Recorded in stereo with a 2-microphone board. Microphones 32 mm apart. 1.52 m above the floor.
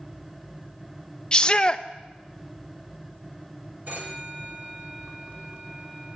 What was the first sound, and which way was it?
A shout, 25° left (ahead or behind).